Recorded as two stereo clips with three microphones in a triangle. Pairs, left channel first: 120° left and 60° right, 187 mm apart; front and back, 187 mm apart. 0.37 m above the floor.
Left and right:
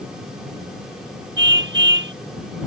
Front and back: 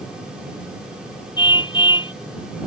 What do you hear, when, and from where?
1.4 s a car horn: 65° right